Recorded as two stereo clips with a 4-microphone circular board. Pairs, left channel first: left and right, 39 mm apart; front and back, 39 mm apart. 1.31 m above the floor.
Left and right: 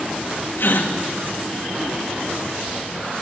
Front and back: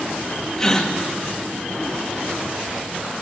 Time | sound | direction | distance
0.6 | a gasp | 75° left | 2.5 m